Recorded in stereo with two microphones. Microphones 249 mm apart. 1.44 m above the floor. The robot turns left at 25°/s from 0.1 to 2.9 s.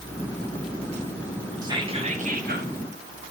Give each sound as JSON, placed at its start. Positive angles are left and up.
{"t": 1.6, "sound": "whispering", "side_deg": -15, "distance_m": 2.5}